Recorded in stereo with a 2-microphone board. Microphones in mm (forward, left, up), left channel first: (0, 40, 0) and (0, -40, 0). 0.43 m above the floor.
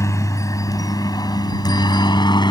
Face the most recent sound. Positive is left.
turn(degrees=65)  # may be behind; listen again after turning